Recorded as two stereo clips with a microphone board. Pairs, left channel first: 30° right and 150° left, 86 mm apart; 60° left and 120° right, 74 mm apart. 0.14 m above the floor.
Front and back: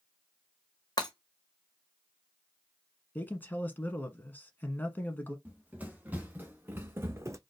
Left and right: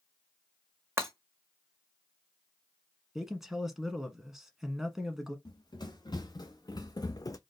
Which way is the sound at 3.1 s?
45° right.